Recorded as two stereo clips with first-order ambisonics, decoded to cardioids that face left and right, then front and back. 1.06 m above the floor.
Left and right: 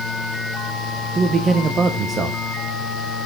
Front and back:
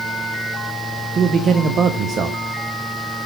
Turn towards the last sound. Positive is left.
turn(degrees=-135)